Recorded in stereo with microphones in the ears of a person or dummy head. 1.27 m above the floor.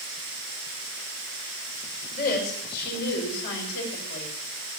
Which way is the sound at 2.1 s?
50° left (ahead or behind).